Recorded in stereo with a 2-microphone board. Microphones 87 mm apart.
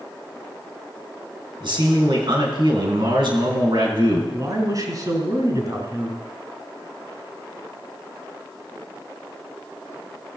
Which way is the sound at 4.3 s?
45° right (ahead or behind).